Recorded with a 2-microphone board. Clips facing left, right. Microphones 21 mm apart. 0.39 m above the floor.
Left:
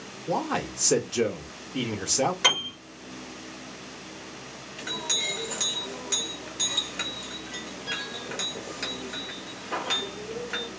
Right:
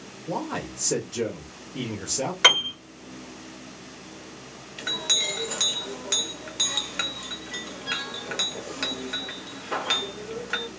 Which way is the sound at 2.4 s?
25° right (ahead or behind).